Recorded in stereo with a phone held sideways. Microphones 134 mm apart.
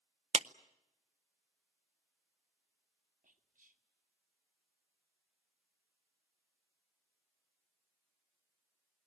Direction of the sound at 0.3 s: 55° right (ahead or behind).